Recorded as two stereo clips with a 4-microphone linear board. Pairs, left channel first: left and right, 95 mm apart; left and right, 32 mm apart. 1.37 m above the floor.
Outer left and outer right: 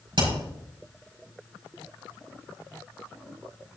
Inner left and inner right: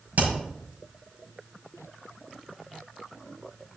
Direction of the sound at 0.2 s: 60° right (ahead or behind).